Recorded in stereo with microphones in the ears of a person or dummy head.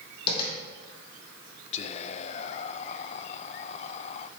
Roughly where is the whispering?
Left.